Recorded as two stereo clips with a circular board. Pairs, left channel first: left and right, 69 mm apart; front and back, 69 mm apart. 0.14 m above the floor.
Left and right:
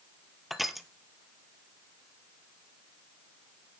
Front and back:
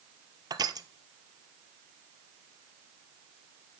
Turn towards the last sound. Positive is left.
turn(degrees=180)